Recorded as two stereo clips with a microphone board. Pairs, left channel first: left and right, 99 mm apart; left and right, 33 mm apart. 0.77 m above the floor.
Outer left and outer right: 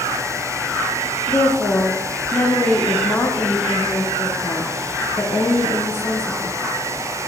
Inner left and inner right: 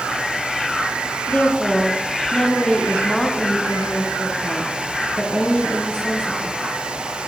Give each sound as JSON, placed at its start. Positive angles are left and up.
{"t": 1.3, "sound": "a woman speaking", "side_deg": 25, "distance_m": 0.5}